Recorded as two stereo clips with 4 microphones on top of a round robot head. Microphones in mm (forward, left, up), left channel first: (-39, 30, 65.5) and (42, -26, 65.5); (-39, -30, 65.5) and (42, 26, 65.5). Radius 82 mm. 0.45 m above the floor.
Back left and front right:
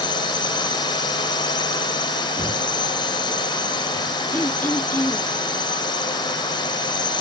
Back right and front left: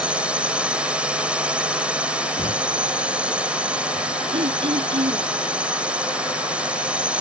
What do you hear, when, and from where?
0.0 s a drone: 110° left
2.4 s knocking: 105° right
4.3 s throat clearing: 75° left